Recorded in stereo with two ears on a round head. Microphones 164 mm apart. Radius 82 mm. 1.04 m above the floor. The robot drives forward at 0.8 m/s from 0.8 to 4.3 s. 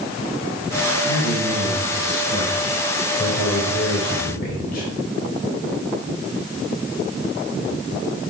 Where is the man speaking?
85° left, 3.5 m; by 4.9 s 55° left (ahead or behind), 4 m.